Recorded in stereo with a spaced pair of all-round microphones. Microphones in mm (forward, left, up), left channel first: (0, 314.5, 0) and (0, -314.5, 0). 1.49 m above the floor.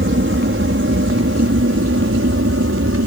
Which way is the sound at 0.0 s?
20° right (ahead or behind).